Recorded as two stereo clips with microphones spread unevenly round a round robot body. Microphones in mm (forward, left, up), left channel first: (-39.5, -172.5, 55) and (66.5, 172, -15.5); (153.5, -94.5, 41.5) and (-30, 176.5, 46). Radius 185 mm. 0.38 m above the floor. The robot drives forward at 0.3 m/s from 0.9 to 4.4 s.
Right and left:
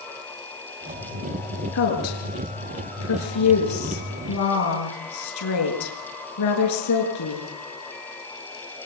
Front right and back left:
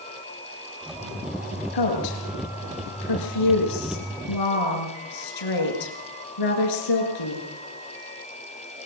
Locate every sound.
1.7 s a woman speaking: 60° right, 8 m; by 7.5 s 65° right, 7.5 m